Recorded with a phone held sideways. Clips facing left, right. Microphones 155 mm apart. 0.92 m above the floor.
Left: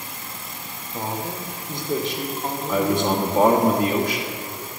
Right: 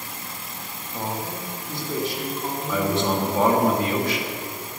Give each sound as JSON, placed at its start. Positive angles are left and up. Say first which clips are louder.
{"t": 0.9, "sound": "a man speaking", "louder": "left 1 dB", "side_deg": 5, "distance_m": 1.3}
{"t": 2.7, "sound": "a man speaking", "louder": "left 2 dB", "side_deg": 15, "distance_m": 1.2}